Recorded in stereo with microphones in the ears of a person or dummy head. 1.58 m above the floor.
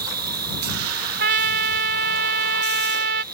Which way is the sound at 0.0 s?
55° right (ahead or behind).